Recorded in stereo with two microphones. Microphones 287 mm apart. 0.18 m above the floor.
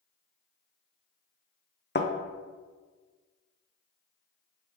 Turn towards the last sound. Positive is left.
turn(degrees=40)  # may be behind; listen again after turning